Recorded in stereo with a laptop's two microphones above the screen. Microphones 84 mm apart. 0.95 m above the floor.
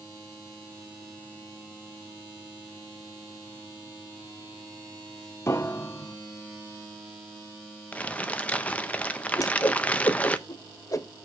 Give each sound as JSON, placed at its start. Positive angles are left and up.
{"t": 5.5, "sound": "a piano", "side_deg": 30, "distance_m": 0.6}
{"t": 7.9, "sound": "crumpling", "side_deg": 15, "distance_m": 0.5}
{"t": 9.4, "sound": "a whoosh", "side_deg": 40, "distance_m": 0.8}